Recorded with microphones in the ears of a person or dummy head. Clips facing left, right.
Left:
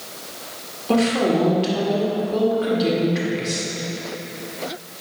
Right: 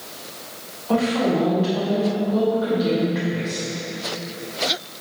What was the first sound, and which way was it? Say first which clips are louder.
A woman speaking: left 2 dB; 40° left (ahead or behind).